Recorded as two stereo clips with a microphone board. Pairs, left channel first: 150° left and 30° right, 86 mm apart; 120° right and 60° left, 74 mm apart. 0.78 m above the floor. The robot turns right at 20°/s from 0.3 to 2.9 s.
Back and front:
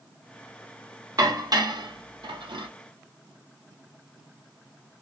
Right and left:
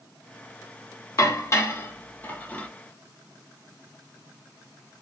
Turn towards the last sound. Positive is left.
turn(degrees=-45)